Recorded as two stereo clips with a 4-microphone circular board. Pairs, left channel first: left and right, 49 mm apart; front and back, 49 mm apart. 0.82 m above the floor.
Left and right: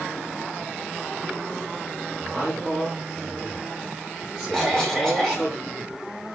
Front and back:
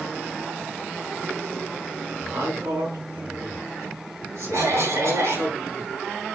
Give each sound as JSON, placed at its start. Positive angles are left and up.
{"t": 2.2, "sound": "a man speaking", "azimuth_deg": 175, "distance_m": 8.0}
{"t": 4.5, "sound": "a cough", "azimuth_deg": 170, "distance_m": 4.5}